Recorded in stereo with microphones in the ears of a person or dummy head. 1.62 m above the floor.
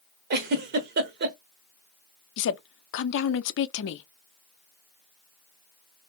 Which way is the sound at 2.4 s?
60° left (ahead or behind).